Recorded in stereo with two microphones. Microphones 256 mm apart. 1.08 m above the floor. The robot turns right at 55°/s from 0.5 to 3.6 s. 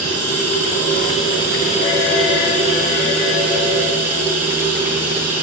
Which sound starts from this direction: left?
Running water, at 0.0 s.